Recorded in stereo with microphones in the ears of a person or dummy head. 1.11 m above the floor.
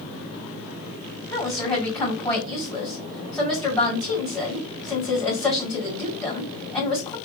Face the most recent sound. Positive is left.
turn(degrees=0)  # may be behind; listen again after turning